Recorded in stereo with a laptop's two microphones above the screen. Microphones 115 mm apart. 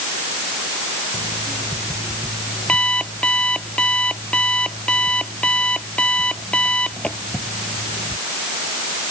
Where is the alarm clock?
10° left (ahead or behind).